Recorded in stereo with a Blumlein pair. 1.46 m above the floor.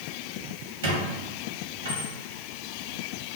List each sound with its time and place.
0.8 s a squeak: 60° right, 1.4 m